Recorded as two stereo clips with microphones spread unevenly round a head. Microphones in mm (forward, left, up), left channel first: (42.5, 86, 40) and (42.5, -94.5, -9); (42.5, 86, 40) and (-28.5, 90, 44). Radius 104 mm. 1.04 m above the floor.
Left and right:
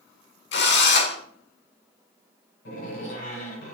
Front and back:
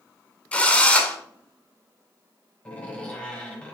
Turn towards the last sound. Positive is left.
turn(degrees=70)